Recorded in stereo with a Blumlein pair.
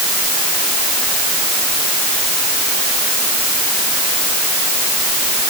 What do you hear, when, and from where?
Only background noise.